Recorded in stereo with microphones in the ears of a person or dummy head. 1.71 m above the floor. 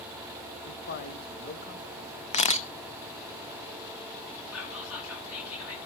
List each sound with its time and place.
0.7 s a man speaking: 50° left (ahead or behind), 1.8 m
2.3 s a camera shutter: 30° left (ahead or behind), 0.7 m
4.5 s whispering: 80° left, 5 m